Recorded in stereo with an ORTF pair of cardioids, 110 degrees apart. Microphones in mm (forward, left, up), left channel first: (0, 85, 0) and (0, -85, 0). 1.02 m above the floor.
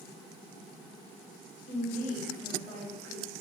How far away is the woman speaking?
About 1.8 m.